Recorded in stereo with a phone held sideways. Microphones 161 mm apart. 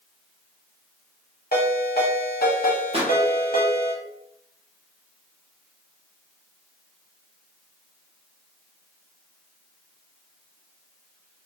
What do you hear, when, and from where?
1.5 s a ringtone: 70° left (ahead or behind), 0.9 m
2.9 s a pop: 35° right (ahead or behind), 0.7 m